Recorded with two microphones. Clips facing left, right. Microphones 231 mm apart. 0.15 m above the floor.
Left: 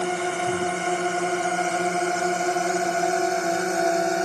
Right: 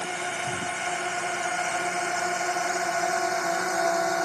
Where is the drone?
55° left (ahead or behind); by 4.3 s 25° left (ahead or behind).